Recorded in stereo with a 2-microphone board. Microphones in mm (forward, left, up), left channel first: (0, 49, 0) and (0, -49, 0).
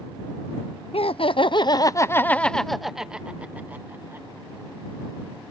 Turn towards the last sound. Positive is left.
turn(degrees=-25)  # may be behind; listen again after turning